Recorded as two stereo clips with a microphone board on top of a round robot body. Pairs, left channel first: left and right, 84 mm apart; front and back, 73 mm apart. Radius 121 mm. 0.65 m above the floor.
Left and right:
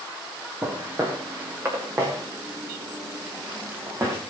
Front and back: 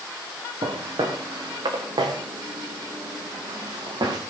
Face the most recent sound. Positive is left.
turn(degrees=-150)